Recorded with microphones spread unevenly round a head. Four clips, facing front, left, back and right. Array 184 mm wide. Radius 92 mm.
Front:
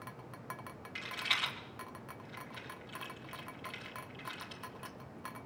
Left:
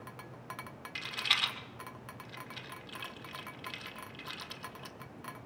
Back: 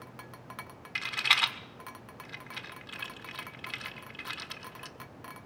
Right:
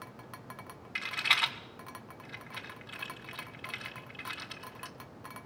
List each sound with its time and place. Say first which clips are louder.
0.9 s a rattle: right 5 dB, back 8 dB; 170° right, 1.8 m